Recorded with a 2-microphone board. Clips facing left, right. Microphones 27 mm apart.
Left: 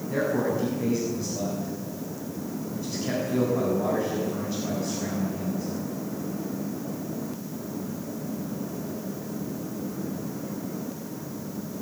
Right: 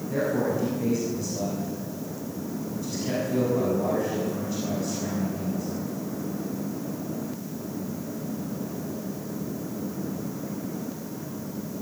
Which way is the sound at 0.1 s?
15° left (ahead or behind).